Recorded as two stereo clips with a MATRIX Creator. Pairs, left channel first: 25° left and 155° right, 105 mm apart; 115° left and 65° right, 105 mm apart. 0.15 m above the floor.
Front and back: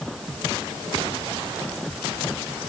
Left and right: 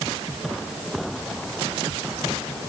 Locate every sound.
Only background noise.